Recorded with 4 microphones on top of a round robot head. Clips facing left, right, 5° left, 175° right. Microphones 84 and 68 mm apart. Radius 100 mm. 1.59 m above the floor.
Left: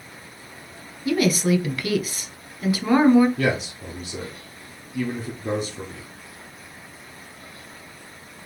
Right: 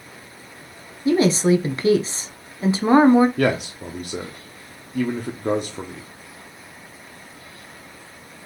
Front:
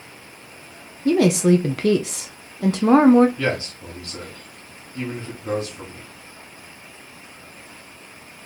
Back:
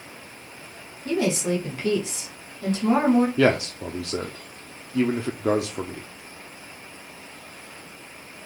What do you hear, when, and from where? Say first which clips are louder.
1.1 s a woman speaking: right 4 dB, front 8 dB; 25° right, 0.7 m
3.4 s a man speaking: right 3 dB, back 4 dB; 140° right, 0.8 m